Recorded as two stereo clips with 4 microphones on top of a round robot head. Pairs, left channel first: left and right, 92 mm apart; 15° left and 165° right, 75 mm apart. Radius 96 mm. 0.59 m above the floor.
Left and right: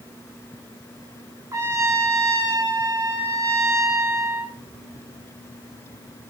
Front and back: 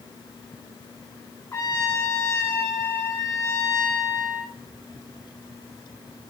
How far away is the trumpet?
About 2 m.